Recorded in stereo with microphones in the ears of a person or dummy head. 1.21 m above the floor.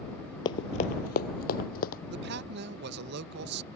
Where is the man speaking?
65° right (ahead or behind).